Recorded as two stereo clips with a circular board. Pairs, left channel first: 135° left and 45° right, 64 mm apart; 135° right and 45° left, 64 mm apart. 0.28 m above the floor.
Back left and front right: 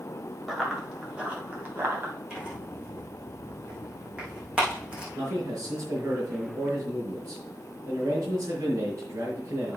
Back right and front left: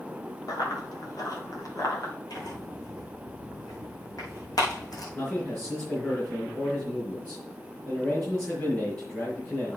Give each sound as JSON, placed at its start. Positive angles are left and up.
{"t": 0.5, "sound": "running footsteps", "azimuth_deg": -130, "distance_m": 4.5}
{"t": 2.3, "sound": "tearing paper", "azimuth_deg": -120, "distance_m": 4.5}
{"t": 5.2, "sound": "a man speaking", "azimuth_deg": -85, "distance_m": 4.0}